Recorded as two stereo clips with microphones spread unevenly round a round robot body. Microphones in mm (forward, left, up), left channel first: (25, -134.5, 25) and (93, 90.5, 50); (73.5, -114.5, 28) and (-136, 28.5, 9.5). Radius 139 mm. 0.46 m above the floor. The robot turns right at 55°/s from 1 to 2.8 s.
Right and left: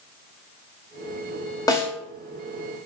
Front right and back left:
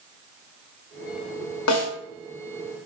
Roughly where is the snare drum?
Ahead right.